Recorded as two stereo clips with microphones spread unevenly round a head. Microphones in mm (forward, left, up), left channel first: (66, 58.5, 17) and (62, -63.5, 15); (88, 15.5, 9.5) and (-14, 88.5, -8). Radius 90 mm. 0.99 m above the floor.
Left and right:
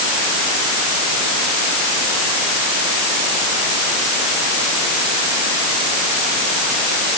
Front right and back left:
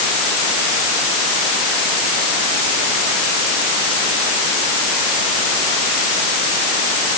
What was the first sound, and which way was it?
Only background noise.